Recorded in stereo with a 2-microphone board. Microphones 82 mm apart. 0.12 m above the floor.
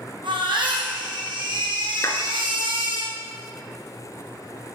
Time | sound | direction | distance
0.2 | a baby crying | 75° right (ahead or behind) | 4.5 m
2.0 | a clap | 40° left (ahead or behind) | 1.7 m